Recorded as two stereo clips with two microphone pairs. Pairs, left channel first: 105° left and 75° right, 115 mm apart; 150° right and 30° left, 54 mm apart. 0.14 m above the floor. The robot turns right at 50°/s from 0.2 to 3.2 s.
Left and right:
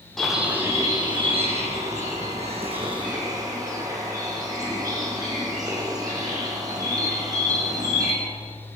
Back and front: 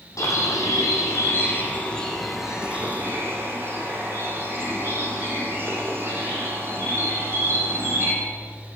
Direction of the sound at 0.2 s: 165° right.